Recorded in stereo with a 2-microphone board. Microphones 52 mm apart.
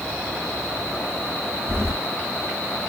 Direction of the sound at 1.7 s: 45° right (ahead or behind).